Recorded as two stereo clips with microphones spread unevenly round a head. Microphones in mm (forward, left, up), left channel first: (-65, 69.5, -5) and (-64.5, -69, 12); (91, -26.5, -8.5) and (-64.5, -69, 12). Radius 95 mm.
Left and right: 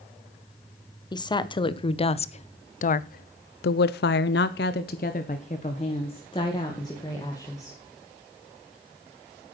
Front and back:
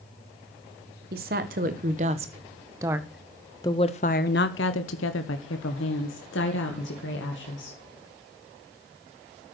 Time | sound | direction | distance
1.1 | a woman speaking | 150° left | 1.6 m